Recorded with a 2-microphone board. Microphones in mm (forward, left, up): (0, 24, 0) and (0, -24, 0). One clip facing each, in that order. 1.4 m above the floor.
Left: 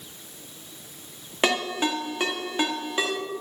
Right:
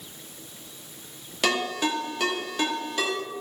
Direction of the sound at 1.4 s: 30° left (ahead or behind).